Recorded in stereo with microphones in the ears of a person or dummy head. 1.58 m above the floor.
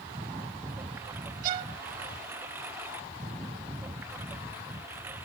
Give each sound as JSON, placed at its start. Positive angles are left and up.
{"t": 0.0, "sound": "a lawn mower", "side_deg": -20}
{"t": 1.4, "sound": "a violin", "side_deg": -55}